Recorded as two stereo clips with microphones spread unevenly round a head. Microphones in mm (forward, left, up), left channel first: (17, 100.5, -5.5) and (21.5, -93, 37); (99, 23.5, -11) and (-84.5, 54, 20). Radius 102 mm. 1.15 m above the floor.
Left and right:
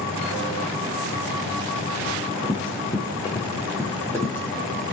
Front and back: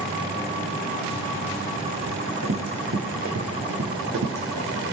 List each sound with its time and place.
2.1 s running footsteps: 160° left, 5 m; by 4.9 s 175° left, 6 m